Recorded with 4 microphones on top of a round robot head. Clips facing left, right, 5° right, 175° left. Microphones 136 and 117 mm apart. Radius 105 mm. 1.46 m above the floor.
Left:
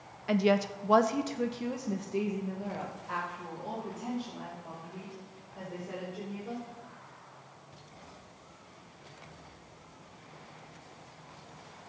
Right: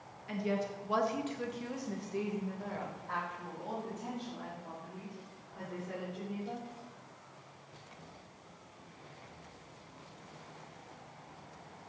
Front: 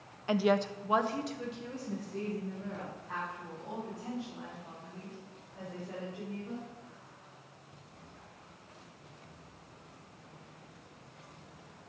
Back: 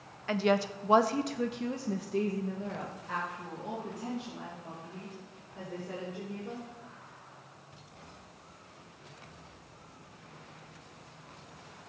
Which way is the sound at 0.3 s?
65° left.